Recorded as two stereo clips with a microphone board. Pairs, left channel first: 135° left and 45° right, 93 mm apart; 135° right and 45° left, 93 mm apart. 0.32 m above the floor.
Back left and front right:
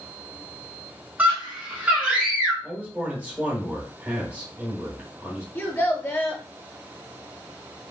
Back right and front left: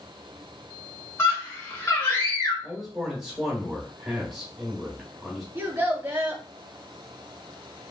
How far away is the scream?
About 1.0 m.